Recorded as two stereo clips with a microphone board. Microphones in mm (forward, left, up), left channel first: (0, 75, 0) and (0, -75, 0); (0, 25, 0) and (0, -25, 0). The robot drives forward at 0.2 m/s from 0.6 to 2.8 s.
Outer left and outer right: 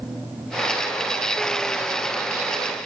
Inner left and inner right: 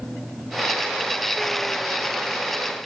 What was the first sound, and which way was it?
Only background noise.